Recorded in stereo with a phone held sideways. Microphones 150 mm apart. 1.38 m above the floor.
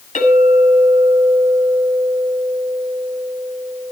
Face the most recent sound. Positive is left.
turn(degrees=55)  # may be behind; listen again after turning